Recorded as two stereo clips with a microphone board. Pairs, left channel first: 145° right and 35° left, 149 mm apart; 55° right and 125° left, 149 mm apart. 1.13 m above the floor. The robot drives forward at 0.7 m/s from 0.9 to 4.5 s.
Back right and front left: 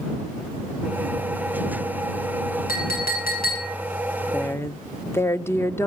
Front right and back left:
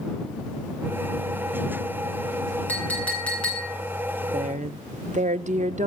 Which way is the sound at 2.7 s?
135° right.